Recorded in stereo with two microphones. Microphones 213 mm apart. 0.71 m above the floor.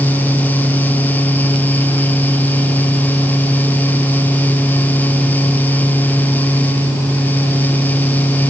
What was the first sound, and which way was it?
Only background noise.